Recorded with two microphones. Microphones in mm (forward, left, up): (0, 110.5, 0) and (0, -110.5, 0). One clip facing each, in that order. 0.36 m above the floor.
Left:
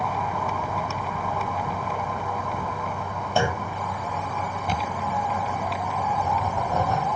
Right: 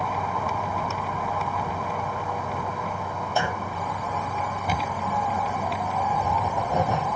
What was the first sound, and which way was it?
A clunk, 30° left (ahead or behind).